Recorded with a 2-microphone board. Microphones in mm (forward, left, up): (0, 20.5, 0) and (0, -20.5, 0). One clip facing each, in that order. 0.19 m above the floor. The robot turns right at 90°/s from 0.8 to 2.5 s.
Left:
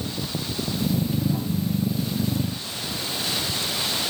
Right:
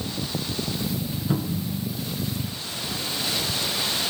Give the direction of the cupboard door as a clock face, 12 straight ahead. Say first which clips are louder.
Left 1 dB; 3 o'clock.